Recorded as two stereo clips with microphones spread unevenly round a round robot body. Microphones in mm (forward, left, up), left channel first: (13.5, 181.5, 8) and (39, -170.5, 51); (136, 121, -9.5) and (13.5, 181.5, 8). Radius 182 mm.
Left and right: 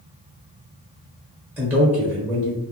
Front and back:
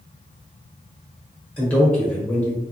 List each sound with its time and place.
1.6 s a man speaking: 10° left, 1.1 m